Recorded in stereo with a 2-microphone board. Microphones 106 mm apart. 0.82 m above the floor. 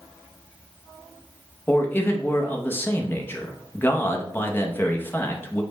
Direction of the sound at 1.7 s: 20° left (ahead or behind).